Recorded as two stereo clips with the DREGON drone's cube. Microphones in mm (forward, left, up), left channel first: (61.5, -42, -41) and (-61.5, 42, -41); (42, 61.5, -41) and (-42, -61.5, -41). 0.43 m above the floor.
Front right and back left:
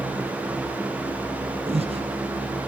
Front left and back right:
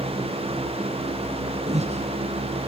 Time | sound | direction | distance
1.7 | breathing | 165° right | 2.5 m